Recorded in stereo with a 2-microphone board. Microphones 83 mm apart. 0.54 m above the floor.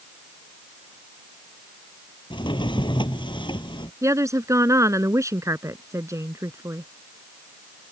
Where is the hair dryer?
I don't hear a hair dryer.